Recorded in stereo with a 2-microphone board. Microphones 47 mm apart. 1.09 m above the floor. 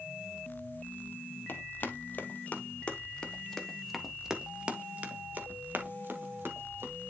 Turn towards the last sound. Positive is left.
turn(degrees=-60)  # may be behind; listen again after turning